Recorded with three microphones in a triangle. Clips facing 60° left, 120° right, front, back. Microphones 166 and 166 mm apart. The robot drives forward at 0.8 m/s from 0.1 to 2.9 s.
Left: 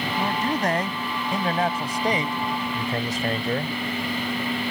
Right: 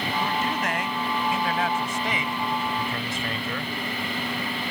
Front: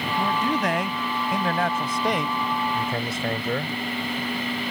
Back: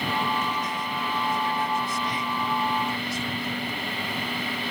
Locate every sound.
0.2 s a man speaking: 5° left; by 3.8 s 10° left